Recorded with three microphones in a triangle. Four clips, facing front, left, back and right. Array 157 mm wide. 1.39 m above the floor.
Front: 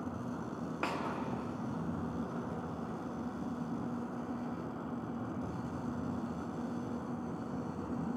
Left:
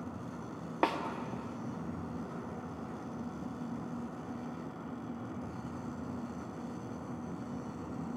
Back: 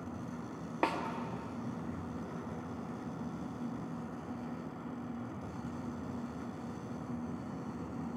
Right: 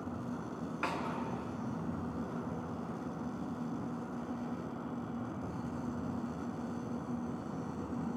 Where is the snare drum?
115° left, 0.5 m.